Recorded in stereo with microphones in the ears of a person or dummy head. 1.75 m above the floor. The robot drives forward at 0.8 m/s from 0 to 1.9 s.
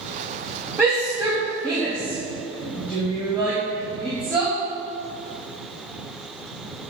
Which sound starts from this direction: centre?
A shout, at 0.8 s.